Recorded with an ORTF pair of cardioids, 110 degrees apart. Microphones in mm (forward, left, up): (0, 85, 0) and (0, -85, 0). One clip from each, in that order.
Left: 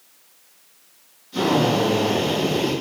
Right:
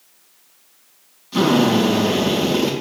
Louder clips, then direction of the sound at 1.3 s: Right 3 dB; 70° right.